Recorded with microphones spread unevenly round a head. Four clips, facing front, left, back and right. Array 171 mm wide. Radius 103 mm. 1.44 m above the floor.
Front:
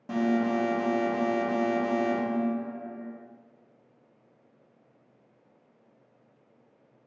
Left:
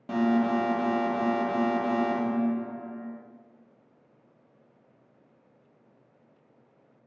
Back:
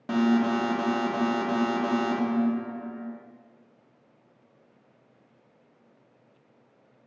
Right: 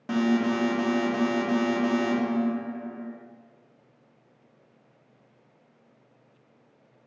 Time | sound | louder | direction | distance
0.1 | an alarm | even, back 3 dB | 145° right | 0.6 m